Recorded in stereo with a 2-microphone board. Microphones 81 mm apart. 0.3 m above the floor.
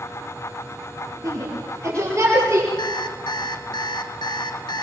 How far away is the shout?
About 6.5 m.